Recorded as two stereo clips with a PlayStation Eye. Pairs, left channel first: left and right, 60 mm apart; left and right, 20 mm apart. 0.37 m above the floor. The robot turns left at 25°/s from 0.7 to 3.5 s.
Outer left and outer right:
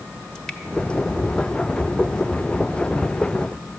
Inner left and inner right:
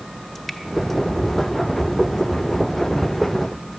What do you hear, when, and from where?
0.3 s dripping: 10° left (ahead or behind), 1.2 m